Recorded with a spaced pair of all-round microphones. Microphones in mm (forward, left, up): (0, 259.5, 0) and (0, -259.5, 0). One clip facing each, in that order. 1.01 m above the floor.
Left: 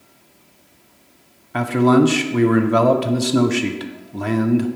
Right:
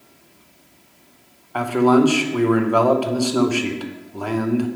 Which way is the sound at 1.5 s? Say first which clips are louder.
Left 1 dB; 45° left (ahead or behind).